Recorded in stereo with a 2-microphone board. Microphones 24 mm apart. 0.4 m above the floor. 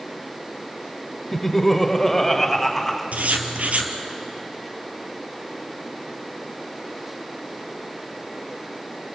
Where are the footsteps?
I don't hear footsteps.